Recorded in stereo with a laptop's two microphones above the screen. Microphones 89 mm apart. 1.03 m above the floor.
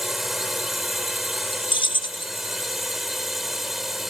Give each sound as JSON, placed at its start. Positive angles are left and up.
{"t": 0.0, "sound": "a drone", "side_deg": -5}
{"t": 1.7, "sound": "keys jangling", "side_deg": 65}